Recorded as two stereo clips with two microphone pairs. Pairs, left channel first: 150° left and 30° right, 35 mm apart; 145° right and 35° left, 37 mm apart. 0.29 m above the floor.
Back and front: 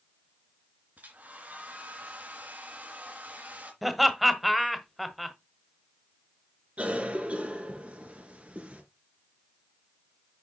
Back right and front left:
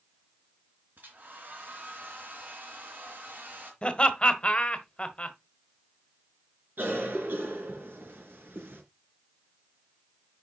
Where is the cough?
15° left, 3.5 m.